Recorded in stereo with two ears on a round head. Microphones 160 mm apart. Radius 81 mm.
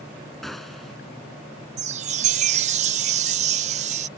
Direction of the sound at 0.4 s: Centre (ahead or behind).